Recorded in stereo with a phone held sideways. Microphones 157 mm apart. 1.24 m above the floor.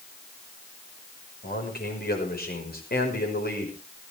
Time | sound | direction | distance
1.4 | a man speaking | 80° left | 5.5 m